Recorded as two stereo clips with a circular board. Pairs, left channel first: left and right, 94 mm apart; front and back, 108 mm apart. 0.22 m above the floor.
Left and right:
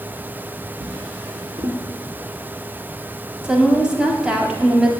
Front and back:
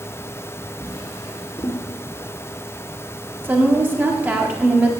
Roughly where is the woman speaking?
Behind right.